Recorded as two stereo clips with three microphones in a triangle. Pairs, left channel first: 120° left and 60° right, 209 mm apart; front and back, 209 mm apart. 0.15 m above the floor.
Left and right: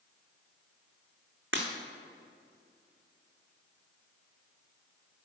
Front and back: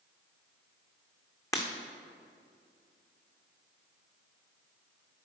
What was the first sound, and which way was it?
Breaking glass, 75° right.